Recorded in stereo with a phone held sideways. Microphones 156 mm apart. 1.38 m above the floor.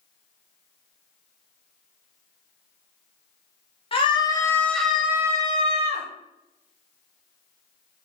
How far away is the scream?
About 1.1 m.